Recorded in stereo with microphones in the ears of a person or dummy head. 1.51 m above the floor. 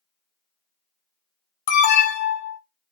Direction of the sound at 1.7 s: 40° left (ahead or behind).